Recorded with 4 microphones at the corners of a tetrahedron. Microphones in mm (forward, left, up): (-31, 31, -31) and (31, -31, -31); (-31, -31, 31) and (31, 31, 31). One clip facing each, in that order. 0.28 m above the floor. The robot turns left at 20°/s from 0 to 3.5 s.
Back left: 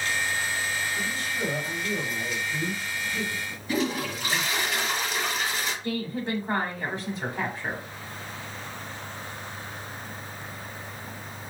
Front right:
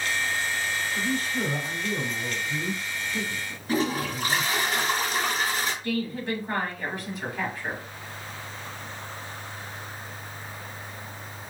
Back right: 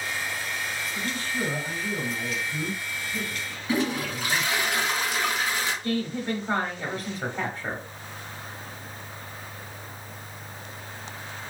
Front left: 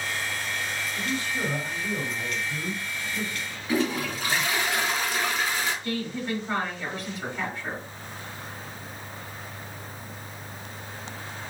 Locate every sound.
0.9 s a man speaking: 15° right, 1.7 m; by 4.7 s 70° right, 1.7 m
3.7 s a toilet flushing: 70° right, 2.0 m
5.8 s a woman speaking: 170° right, 1.2 m